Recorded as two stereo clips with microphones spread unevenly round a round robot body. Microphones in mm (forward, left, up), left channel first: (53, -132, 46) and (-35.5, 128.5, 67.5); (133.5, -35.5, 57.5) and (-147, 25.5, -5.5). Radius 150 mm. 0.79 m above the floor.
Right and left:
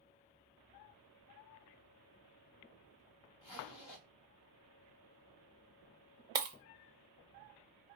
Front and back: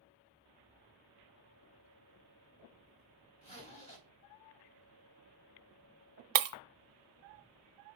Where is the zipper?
80° right, 2.5 m.